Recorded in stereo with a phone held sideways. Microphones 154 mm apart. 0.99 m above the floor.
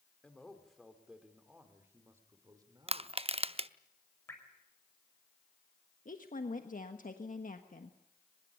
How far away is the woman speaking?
About 1.4 m.